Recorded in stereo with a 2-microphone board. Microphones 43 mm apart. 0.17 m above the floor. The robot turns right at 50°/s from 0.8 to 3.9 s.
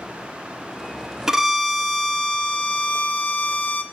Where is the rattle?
I don't hear a rattle.